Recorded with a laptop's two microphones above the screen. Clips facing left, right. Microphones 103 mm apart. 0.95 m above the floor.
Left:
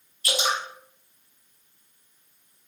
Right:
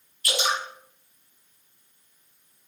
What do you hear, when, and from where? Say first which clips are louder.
0.2 s dripping: even; 20° left (ahead or behind), 1.7 m